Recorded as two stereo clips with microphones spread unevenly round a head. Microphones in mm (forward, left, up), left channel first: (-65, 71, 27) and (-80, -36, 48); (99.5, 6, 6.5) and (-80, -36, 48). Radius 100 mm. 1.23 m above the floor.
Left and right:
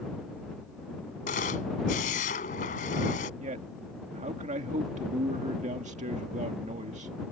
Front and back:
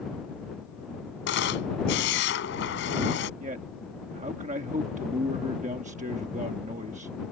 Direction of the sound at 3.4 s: 110° right.